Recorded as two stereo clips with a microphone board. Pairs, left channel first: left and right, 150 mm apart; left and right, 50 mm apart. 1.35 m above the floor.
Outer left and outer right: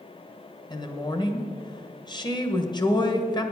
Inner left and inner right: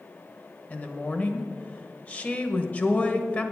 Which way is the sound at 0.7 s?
30° left (ahead or behind).